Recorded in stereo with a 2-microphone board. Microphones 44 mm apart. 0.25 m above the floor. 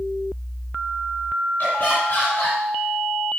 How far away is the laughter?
About 2.5 m.